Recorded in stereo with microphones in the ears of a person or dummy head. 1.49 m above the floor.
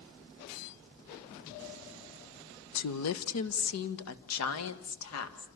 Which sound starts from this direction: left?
A woman speaking, at 2.8 s.